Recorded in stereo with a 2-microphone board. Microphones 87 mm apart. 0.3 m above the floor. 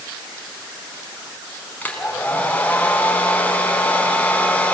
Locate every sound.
1.8 s a hair dryer: 20° left (ahead or behind), 3.5 m